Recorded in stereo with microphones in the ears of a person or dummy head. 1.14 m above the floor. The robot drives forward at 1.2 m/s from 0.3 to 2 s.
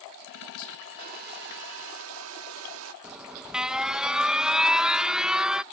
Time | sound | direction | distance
1.0 | a hair dryer | 50° right (ahead or behind) | ?
3.0 | an alarm | 5° right (ahead or behind) | ?